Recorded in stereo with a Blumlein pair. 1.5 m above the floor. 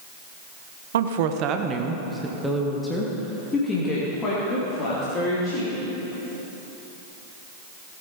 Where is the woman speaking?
60° right, 1.0 m; by 5.8 s 30° left, 4 m.